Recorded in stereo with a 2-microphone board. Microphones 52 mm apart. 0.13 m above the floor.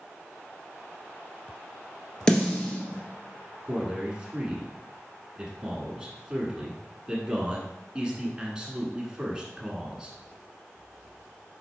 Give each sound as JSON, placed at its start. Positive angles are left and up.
{"t": 2.3, "sound": "a snare drum", "side_deg": 15, "distance_m": 1.2}
{"t": 3.6, "sound": "a man speaking", "side_deg": -20, "distance_m": 1.0}